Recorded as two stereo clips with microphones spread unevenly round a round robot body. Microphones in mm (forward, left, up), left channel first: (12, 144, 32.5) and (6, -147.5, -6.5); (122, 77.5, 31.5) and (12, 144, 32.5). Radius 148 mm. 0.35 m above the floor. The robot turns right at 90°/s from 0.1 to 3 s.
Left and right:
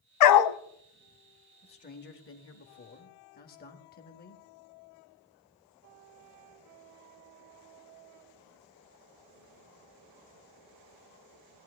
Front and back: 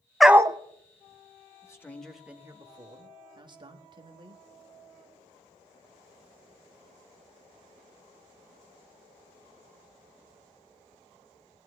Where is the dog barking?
60° left, 0.7 m; by 0.6 s 90° left, 0.7 m.